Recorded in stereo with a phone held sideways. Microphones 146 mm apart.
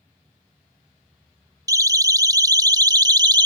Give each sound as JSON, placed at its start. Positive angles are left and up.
{"t": 1.7, "sound": "a siren", "side_deg": -25}